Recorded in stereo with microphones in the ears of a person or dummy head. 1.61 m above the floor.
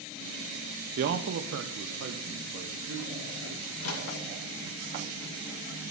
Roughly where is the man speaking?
Right.